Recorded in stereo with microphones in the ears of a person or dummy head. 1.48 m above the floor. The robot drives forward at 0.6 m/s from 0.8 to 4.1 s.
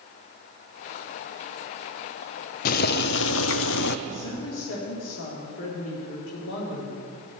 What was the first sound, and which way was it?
Boiling, 50° left (ahead or behind).